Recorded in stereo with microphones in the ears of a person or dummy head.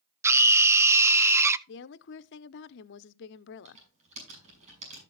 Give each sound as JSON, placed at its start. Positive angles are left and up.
{"t": 0.2, "sound": "a scream", "side_deg": -10, "distance_m": 0.6}
{"t": 1.7, "sound": "a woman speaking", "side_deg": 70, "distance_m": 0.6}
{"t": 3.6, "sound": "typing on a keyboard", "side_deg": -35, "distance_m": 6.0}